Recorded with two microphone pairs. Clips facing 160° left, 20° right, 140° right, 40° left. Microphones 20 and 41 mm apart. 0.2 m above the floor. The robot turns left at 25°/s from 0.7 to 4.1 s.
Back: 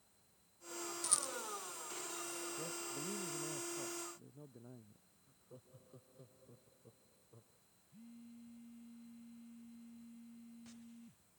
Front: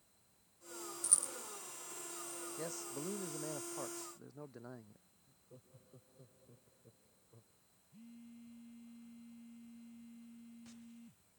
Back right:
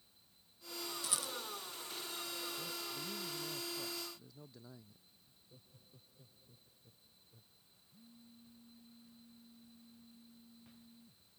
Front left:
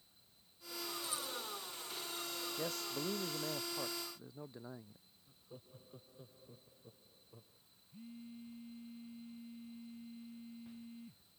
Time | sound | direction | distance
1.0 | a rattle | 145° right | ?
2.6 | a man speaking | 20° left | ?
5.3 | laughter | 85° left | ?
7.9 | a phone buzzing | 50° left | ?